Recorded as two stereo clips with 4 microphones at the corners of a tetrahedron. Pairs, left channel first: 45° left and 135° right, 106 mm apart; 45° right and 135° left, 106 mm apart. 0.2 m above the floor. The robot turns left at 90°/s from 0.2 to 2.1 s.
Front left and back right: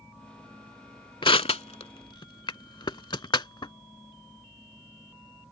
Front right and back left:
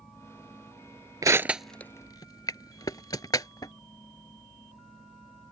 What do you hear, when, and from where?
1.2 s crushing: 85° left; by 3.7 s 5° left